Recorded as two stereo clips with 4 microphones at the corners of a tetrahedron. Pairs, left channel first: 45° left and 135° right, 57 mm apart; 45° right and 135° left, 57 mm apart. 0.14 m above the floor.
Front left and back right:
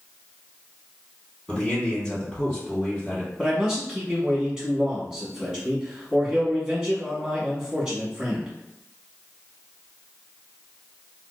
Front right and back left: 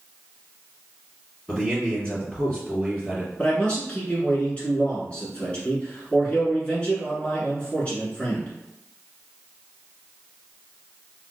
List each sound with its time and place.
1.5 s a man speaking: 20° right, 1.8 m
3.4 s a man speaking: 70° right, 1.1 m